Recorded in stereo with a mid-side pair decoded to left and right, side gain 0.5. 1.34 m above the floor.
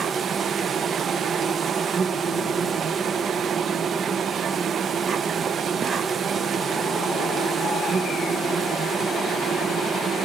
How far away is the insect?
About 0.7 m.